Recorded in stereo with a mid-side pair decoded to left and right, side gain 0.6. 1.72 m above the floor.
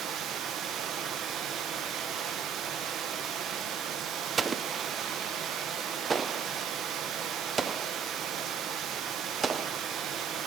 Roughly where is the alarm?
No alarm in this recording.